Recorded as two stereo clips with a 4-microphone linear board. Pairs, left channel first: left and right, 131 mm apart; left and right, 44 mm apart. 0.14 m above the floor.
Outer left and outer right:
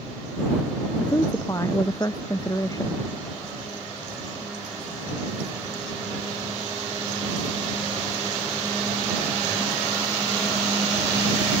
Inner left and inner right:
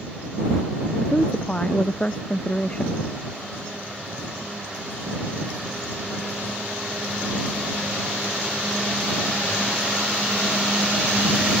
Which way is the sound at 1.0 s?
25° left (ahead or behind).